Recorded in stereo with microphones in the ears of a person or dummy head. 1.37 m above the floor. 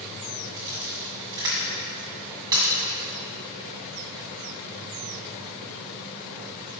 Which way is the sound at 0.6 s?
20° right (ahead or behind).